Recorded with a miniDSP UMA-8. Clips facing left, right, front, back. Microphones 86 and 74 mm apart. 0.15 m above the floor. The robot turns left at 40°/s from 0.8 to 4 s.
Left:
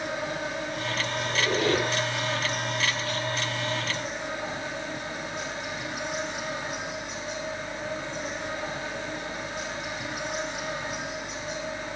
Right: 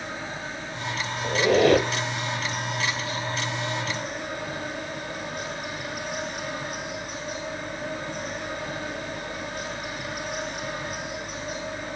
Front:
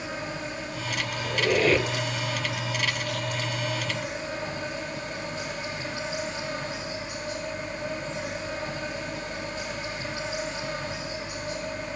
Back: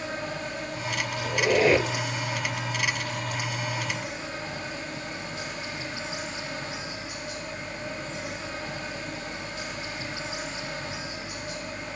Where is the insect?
70° left, 5 m; by 12.0 s 60° right, 5 m.